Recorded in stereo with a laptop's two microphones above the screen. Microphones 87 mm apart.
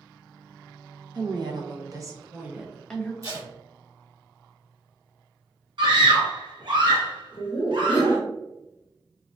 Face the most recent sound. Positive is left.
turn(degrees=35)  # may be behind; listen again after turning